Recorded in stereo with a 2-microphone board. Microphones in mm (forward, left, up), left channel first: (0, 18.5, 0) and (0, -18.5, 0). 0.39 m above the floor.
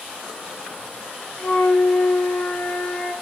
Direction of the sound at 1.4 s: 50° left (ahead or behind).